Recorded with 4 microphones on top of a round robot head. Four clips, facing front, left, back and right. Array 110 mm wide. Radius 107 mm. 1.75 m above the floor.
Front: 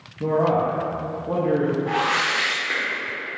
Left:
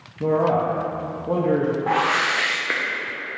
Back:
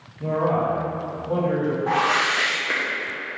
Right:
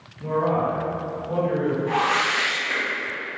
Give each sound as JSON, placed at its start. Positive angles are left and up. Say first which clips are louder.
{"t": 0.2, "sound": "a man speaking", "louder": "left 3 dB, front 2 dB", "azimuth_deg": 65, "distance_m": 1.3}
{"t": 1.9, "sound": "a whoosh", "louder": "left 1 dB, back 1 dB", "azimuth_deg": 110, "distance_m": 1.0}